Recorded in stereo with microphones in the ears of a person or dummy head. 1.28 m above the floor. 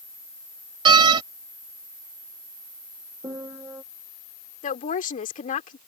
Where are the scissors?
I don't hear scissors.